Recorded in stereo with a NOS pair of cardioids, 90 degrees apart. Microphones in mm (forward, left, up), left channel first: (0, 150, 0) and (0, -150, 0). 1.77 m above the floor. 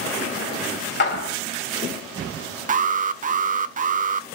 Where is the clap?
40° left, 2.5 m.